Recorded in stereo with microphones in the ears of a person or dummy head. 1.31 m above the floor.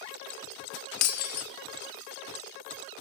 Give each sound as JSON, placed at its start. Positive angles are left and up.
{"t": 1.0, "sound": "breaking glass", "side_deg": 50, "distance_m": 1.4}